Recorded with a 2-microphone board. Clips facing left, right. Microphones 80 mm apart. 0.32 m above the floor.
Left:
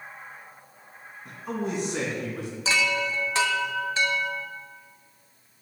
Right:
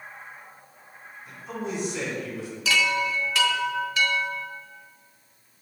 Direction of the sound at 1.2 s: 60° left (ahead or behind).